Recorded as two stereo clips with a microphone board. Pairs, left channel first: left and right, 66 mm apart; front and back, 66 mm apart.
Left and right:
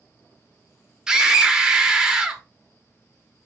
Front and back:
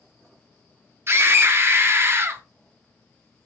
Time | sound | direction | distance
1.1 | a scream | 165° right | 0.7 m